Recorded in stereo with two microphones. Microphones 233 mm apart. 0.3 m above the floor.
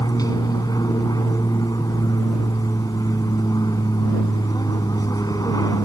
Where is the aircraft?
15° left (ahead or behind).